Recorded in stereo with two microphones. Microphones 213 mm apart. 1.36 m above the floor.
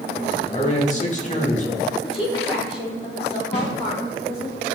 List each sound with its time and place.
0.5 s a man speaking: 35° left (ahead or behind), 2 m
2.0 s a woman speaking: 25° left (ahead or behind), 4 m
3.5 s a snare drum: 55° left (ahead or behind), 3 m